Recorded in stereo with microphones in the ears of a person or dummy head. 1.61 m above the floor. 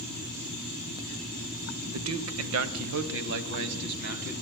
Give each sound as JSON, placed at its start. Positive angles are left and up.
{"t": 1.9, "sound": "a man speaking", "side_deg": -75, "distance_m": 0.7}